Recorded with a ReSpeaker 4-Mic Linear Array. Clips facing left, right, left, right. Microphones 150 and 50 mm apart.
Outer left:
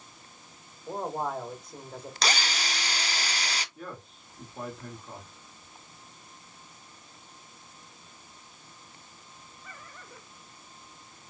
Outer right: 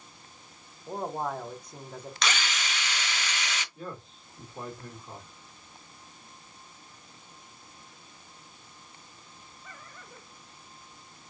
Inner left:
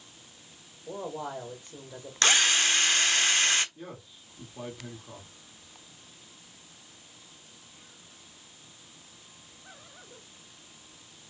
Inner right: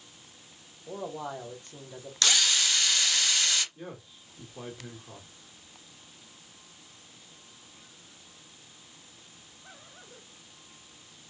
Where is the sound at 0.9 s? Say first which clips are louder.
Outer left 1 dB, inner left 1 dB; centre (ahead or behind), 1.1 m.